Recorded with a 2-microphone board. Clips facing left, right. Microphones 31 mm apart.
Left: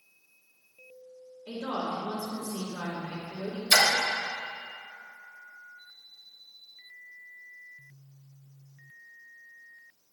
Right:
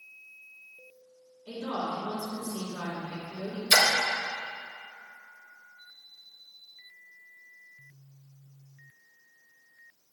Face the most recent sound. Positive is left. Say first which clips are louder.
# even
turn(degrees=-35)  # may be behind; listen again after turning